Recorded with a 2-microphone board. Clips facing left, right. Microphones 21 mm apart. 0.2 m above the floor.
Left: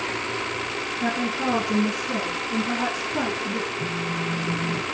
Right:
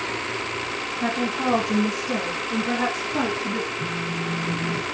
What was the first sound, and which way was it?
A woman speaking, 30° right (ahead or behind).